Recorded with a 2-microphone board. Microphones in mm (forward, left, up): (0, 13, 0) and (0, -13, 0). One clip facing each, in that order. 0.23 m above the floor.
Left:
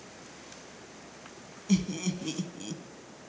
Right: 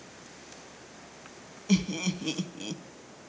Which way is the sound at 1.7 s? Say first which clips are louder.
Right 1 dB; 25° right (ahead or behind).